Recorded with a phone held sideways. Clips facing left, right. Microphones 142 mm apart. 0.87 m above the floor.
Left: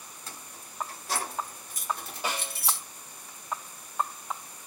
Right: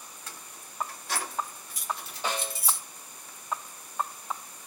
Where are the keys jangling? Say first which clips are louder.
Left 3 dB; 30° left (ahead or behind), 2.5 m; by 2.8 s 75° left (ahead or behind), 0.9 m.